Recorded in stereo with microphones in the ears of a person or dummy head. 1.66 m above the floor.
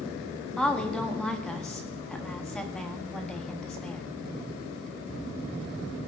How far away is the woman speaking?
About 1.1 m.